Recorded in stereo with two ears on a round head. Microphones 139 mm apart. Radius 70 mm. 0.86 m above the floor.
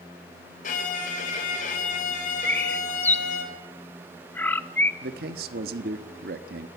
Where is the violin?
50° left (ahead or behind), 3.5 m.